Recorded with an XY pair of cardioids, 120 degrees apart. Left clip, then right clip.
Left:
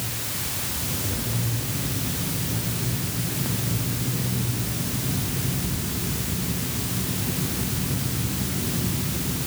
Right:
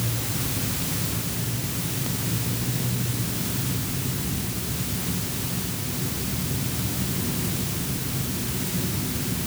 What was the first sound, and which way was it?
Only background noise.